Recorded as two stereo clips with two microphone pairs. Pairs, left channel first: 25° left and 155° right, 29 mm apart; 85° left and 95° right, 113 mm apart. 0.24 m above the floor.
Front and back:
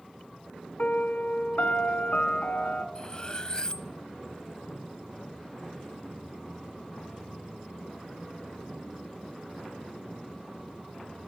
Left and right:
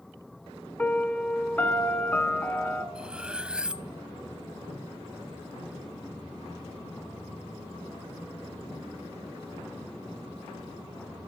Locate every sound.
0.8 s a piano: 15° left, 1.7 m
3.0 s cutlery clinking: 20° right, 0.7 m